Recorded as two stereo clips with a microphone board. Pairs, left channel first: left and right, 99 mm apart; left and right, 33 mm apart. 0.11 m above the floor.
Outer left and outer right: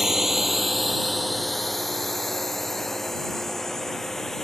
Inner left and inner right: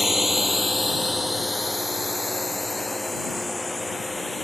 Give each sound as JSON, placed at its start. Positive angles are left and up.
{"t": 0.0, "sound": "a drone", "side_deg": -5}